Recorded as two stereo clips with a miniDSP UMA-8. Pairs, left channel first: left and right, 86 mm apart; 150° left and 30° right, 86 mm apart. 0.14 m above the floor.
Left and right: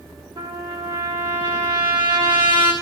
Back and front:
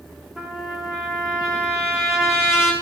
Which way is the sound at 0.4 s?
115° right.